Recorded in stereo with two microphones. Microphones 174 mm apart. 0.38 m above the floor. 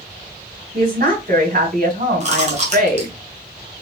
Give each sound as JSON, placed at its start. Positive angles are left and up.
{"t": 0.7, "sound": "a woman speaking", "side_deg": -60, "distance_m": 3.0}
{"t": 2.2, "sound": "chewing", "side_deg": -40, "distance_m": 1.5}